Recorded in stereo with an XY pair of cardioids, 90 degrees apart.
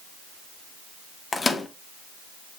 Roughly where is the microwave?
Ahead left.